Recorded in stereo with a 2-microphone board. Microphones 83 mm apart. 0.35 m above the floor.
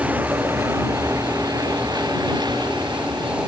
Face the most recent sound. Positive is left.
turn(degrees=-65)  # may be behind; listen again after turning